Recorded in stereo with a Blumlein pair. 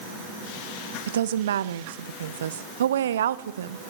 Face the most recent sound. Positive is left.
turn(degrees=-65)